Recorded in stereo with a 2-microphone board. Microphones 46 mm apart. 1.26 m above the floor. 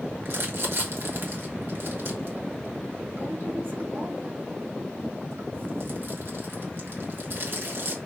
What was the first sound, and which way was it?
Crumpling, 60° right (ahead or behind).